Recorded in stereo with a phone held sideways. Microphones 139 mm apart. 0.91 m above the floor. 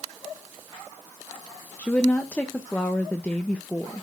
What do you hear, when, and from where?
1.8 s a woman speaking: 10° left (ahead or behind), 0.8 m